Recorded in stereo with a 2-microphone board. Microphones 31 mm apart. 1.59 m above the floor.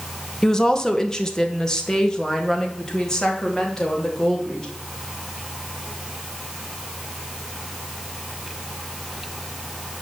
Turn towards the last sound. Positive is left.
turn(degrees=20)  # may be behind; listen again after turning